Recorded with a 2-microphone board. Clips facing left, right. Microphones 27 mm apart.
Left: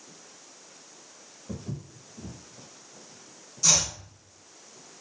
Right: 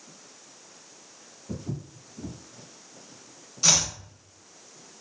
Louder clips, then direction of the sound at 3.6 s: Right 2 dB; 35° right (ahead or behind).